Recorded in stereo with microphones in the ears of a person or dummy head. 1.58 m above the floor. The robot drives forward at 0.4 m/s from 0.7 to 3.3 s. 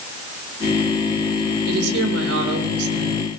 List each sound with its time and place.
1.7 s a woman speaking: 85° right, 7 m; by 3.2 s 90° right, 7 m